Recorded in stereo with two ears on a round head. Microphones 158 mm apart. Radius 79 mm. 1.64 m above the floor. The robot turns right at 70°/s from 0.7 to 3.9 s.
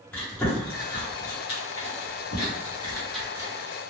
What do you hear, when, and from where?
0.1 s chewing: 5° left (ahead or behind), 0.9 m; by 3.5 s 25° right (ahead or behind), 0.9 m